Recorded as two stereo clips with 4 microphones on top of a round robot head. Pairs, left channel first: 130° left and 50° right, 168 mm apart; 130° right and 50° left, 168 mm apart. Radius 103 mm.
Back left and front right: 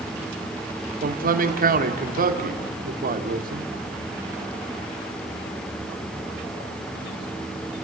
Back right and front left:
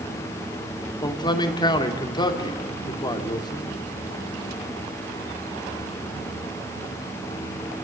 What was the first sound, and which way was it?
A man speaking, 70° right.